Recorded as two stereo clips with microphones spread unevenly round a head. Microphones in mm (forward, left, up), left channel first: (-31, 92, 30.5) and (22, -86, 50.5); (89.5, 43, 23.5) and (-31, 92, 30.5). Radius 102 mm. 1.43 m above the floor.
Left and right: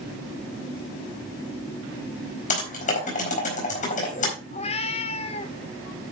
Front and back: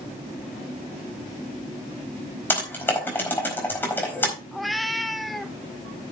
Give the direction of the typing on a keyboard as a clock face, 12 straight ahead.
10 o'clock.